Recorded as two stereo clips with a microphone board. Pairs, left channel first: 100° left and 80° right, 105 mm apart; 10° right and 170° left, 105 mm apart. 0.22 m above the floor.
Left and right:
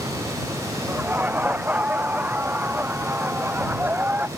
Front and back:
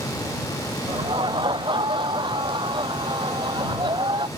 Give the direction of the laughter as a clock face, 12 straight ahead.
5 o'clock.